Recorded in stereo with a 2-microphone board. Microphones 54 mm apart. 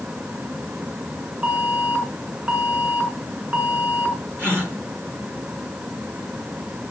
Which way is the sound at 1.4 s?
30° right (ahead or behind).